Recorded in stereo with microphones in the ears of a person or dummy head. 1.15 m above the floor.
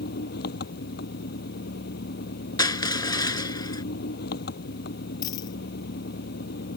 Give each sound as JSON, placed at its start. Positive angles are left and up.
{"t": 0.0, "sound": "an engine running", "side_deg": 60}
{"t": 2.6, "sound": "crushing", "side_deg": 20}
{"t": 5.2, "sound": "a dropped coin", "side_deg": 25}